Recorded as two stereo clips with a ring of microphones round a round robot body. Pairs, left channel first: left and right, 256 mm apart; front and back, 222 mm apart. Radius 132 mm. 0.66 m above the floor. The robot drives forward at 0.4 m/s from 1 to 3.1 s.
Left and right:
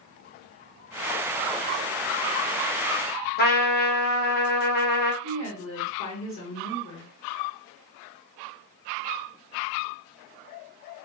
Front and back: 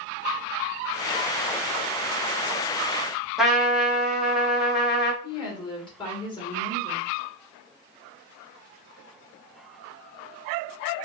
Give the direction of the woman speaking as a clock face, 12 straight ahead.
10 o'clock.